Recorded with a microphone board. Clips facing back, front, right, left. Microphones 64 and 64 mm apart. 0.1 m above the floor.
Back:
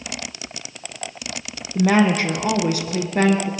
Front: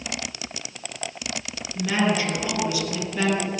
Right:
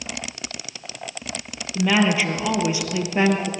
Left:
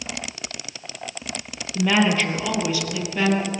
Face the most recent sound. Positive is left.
turn(degrees=-140)